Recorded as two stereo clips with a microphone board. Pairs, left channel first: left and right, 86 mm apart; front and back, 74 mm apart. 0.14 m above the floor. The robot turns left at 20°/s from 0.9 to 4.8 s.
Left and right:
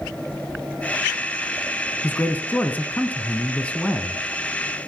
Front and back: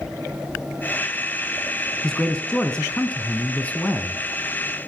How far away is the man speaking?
About 1.2 m.